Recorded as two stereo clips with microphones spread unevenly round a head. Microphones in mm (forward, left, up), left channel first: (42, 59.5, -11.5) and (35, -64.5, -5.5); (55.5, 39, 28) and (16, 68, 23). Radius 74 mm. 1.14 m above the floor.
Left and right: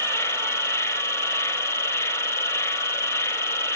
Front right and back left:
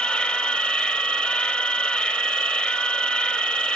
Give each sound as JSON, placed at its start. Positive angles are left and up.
{"t": 0.0, "sound": "an insect", "azimuth_deg": 20, "distance_m": 0.7}